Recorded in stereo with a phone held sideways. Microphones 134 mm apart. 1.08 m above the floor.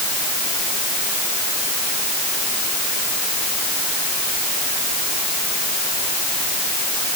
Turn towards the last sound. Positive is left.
No sound to turn to.